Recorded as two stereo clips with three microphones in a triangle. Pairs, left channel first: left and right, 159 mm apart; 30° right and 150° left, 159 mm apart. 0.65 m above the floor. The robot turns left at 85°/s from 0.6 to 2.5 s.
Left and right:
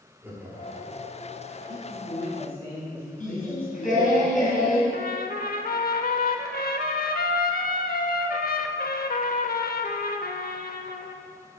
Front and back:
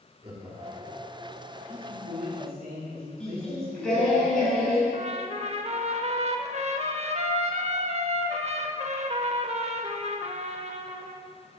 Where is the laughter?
165° right, 1.7 m; by 1.0 s 165° left, 1.7 m.